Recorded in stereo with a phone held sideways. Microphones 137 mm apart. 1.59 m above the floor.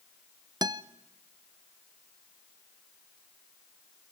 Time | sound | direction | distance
0.6 | a guitar | 30° right (ahead or behind) | 0.7 m